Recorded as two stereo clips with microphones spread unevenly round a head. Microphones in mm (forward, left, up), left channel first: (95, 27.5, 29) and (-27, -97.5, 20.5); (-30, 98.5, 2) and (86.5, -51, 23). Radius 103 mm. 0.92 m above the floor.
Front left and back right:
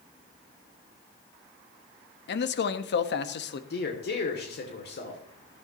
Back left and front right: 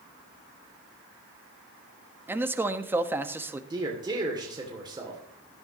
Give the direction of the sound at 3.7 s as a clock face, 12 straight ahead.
11 o'clock.